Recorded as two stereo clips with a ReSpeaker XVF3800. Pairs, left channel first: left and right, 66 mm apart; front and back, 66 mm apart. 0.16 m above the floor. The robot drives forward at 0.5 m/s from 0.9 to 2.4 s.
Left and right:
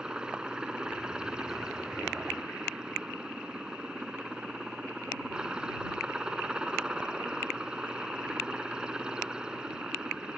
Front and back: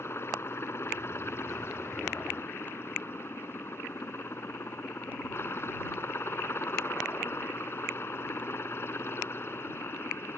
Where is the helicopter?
20° right.